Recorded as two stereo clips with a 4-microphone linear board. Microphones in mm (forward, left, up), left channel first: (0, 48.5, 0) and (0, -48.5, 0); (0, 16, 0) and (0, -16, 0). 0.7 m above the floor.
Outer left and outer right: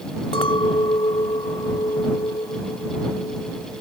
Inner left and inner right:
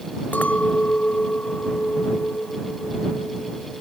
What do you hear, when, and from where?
0.3 s a clink: 80° left